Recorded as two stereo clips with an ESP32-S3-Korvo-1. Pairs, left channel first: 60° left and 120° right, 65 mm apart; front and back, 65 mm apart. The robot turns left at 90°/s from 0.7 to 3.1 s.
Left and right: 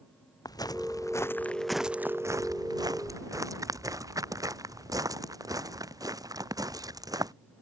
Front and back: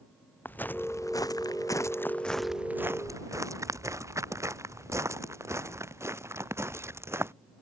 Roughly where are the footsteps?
Ahead left.